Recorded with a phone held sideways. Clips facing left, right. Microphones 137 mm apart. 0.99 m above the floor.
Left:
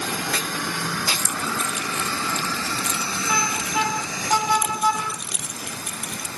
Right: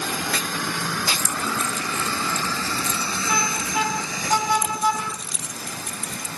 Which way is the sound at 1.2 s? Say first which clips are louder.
Right 1 dB; 85° left.